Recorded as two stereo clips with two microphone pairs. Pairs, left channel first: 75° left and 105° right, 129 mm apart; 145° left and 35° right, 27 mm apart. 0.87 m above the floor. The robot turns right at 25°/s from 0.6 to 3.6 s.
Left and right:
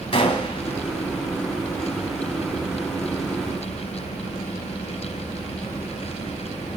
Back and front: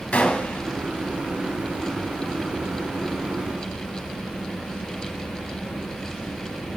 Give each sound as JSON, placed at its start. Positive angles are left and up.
{"t": 0.1, "sound": "a gunshot", "azimuth_deg": 120, "distance_m": 1.7}